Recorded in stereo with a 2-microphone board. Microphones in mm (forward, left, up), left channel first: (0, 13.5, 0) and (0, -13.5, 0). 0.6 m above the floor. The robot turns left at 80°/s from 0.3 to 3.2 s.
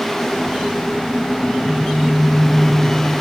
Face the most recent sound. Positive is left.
turn(degrees=-10)